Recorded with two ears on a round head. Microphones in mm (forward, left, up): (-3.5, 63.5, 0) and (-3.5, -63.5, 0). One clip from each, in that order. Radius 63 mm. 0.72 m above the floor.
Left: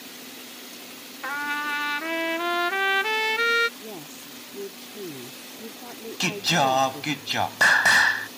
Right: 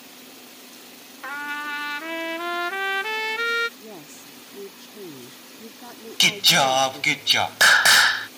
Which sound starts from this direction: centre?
A trumpet, at 1.2 s.